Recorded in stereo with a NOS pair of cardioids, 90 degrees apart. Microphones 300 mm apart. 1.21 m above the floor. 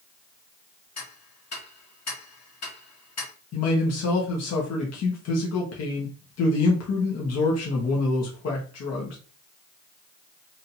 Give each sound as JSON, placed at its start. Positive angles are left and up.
{"t": 1.0, "sound": "ticking", "azimuth_deg": 55, "distance_m": 2.0}
{"t": 3.5, "sound": "a man speaking", "azimuth_deg": 60, "distance_m": 1.6}